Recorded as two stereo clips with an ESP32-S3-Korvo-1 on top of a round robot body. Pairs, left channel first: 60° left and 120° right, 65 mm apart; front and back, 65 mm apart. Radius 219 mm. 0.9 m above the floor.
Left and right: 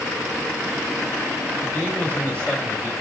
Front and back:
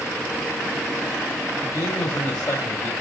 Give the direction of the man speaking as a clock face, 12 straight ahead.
1 o'clock.